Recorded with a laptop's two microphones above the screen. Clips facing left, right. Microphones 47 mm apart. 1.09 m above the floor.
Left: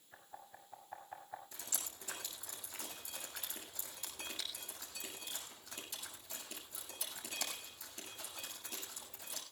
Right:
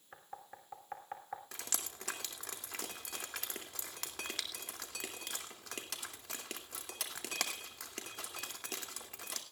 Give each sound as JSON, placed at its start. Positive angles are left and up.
{"t": 0.1, "sound": "knocking", "side_deg": -65, "distance_m": 3.0}
{"t": 1.5, "sound": "dripping", "side_deg": -85, "distance_m": 2.5}